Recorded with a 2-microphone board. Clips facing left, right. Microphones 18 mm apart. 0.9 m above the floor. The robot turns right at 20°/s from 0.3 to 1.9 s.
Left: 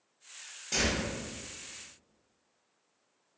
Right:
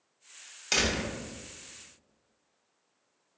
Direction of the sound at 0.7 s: 75° right (ahead or behind).